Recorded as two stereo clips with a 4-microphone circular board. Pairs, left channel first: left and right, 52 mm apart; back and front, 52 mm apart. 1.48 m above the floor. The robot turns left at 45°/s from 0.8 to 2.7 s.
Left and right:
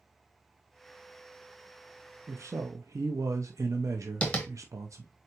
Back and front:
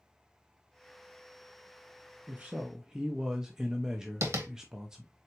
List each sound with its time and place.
2.3 s a man speaking: 60° right, 0.5 m; by 5.1 s 80° right, 0.5 m
4.2 s tapping: 25° left, 1.2 m